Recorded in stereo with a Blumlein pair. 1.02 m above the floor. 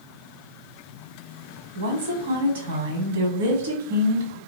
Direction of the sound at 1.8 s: 60° right.